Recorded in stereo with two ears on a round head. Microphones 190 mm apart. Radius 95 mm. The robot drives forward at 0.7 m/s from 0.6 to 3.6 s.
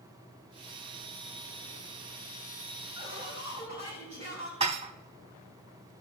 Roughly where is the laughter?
Right.